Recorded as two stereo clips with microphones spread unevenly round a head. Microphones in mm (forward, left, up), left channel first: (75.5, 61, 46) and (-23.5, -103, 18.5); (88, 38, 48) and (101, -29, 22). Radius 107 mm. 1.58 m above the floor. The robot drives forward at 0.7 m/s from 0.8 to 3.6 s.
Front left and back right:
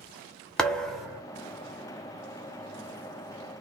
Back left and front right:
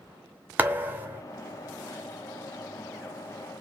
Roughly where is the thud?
Ahead.